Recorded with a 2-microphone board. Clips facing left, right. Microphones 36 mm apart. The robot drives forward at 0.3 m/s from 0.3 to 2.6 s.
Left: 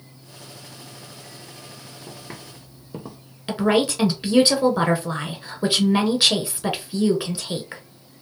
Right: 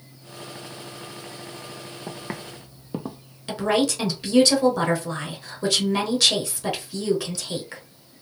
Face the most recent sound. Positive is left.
turn(degrees=20)  # may be behind; listen again after turning